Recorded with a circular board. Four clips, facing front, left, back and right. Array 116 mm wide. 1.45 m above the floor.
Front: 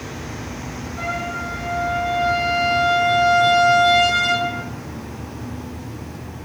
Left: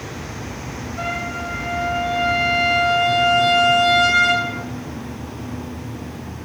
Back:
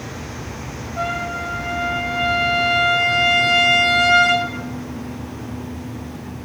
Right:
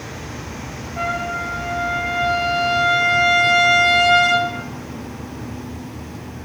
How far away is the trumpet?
About 0.7 m.